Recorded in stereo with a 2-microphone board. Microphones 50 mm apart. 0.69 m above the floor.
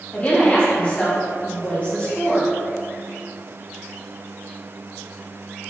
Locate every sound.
0.1 s a woman speaking: 30° left (ahead or behind), 1.0 m